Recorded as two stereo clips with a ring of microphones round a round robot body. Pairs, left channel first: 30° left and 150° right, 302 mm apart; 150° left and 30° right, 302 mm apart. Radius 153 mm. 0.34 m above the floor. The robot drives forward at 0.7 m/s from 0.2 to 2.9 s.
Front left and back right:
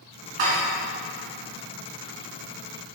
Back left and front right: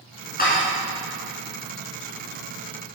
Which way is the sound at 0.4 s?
145° right.